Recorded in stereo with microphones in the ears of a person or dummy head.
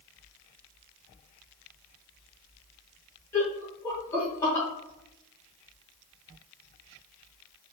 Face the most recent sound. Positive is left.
turn(degrees=15)  # may be behind; listen again after turning